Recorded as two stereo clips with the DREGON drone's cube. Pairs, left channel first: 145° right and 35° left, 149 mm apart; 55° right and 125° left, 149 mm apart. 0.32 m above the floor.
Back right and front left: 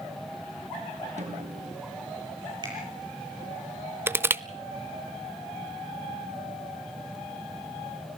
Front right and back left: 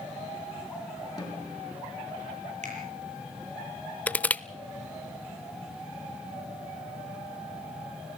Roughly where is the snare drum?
Ahead.